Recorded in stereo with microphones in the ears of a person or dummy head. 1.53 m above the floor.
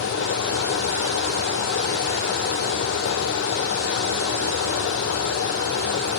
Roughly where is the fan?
Left.